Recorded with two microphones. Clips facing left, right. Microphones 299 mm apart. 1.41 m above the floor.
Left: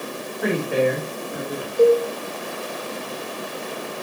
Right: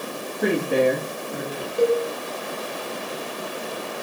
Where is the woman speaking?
50° right (ahead or behind), 3 m; by 1.7 s 20° right (ahead or behind), 2.5 m.